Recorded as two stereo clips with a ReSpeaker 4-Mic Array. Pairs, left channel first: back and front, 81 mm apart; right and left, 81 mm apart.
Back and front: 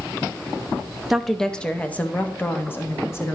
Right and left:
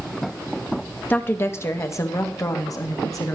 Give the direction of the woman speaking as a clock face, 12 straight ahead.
3 o'clock.